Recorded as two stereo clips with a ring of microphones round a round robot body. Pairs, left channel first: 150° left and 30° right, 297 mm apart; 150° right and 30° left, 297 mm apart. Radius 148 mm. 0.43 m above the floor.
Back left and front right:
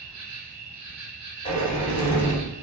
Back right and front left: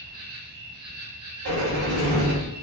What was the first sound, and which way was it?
An insect, 5° left.